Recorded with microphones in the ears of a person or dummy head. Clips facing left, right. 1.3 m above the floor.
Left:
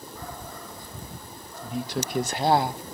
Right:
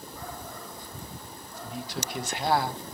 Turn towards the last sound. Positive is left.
turn(degrees=10)  # may be behind; listen again after turning